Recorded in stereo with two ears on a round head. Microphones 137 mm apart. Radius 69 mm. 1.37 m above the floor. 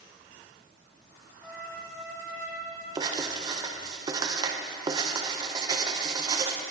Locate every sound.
1.4 s a trumpet: 5° left (ahead or behind), 2.5 m
3.0 s writing: 25° right (ahead or behind), 0.6 m